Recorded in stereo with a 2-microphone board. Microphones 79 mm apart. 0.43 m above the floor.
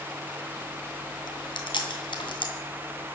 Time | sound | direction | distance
1.3 | chewing | 75° left (ahead or behind) | 2.5 m